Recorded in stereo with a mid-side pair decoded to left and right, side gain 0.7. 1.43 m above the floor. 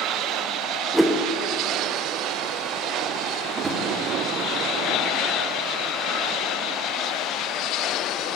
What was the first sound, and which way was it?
A whoosh, 5° right.